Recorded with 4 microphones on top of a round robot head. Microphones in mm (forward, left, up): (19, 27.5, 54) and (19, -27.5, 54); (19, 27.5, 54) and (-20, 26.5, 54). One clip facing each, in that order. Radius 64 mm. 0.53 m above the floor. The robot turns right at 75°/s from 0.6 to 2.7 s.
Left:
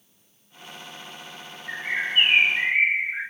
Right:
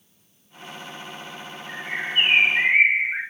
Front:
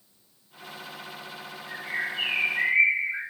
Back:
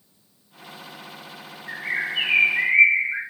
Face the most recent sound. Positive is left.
turn(degrees=-145)